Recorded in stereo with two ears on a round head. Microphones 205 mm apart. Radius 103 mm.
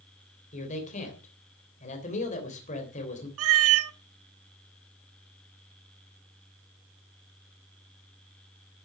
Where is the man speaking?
35° left (ahead or behind), 3 m.